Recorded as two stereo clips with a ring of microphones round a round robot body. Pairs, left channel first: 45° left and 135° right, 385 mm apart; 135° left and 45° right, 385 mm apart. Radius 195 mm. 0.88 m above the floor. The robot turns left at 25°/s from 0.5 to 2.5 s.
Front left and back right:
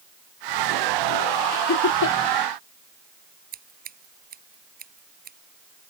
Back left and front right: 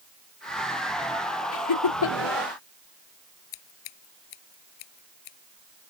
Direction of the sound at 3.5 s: 155° left.